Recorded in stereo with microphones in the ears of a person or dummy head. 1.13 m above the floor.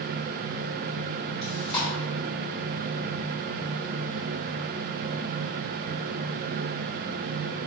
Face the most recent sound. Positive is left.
turn(degrees=5)  # may be behind; listen again after turning